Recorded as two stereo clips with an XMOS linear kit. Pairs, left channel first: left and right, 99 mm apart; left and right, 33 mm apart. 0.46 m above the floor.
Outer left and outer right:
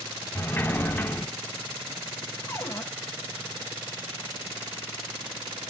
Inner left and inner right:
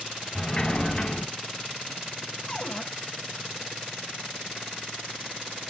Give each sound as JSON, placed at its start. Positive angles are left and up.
{"t": 0.3, "sound": "a sliding door", "side_deg": 20, "distance_m": 1.2}
{"t": 2.5, "sound": "a cupboard door", "side_deg": 25, "distance_m": 1.7}